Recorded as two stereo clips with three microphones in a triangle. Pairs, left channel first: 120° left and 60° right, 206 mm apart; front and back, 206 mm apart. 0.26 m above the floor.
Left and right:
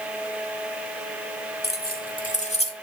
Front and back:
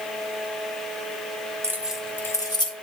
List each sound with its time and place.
1.6 s keys jangling: 110° left, 1.1 m; by 2.7 s 60° left, 1.5 m